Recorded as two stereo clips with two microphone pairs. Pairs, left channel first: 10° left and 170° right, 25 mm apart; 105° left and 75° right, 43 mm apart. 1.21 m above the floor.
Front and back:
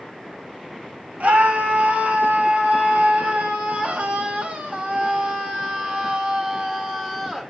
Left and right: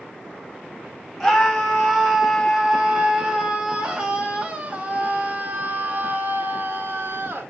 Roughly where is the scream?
Behind.